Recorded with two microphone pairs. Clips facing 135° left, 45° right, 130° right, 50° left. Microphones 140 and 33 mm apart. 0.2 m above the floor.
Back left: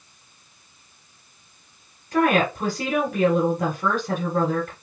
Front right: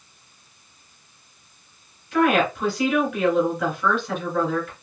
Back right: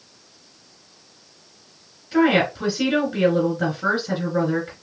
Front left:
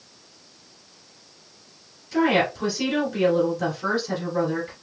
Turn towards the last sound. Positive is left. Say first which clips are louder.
# even, back right 3 dB
turn(degrees=170)